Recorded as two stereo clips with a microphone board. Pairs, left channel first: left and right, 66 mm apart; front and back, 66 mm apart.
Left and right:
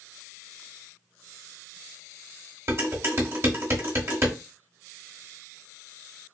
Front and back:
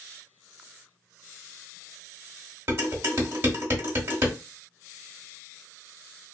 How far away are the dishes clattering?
About 1.2 m.